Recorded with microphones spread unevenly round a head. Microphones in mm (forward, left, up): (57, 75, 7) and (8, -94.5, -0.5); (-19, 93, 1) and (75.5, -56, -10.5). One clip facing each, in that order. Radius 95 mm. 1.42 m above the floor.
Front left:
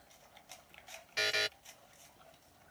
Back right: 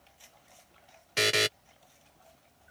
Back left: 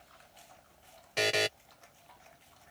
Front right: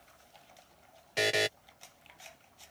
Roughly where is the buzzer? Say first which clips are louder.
Back right 10 dB, even; behind right.